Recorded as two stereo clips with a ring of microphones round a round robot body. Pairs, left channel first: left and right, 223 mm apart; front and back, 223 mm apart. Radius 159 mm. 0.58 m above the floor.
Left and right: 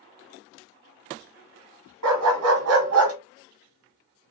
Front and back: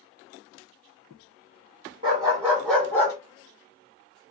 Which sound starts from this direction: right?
A dog barking, at 2.0 s.